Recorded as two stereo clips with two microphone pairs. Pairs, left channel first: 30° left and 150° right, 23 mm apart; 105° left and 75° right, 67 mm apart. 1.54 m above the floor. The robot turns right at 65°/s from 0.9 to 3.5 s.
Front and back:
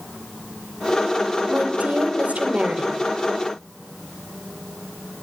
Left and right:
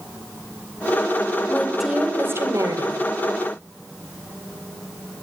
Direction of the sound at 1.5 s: Straight behind.